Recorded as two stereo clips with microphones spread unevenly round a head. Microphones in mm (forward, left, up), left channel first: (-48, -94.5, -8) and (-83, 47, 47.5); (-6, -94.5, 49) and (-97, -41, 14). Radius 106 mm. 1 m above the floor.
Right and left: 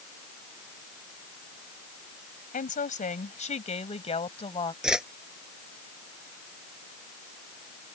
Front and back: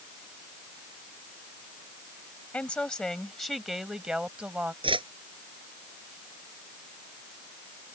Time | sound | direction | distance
2.5 | a woman speaking | 105° right | ?
4.8 | a whoosh | 175° right | ?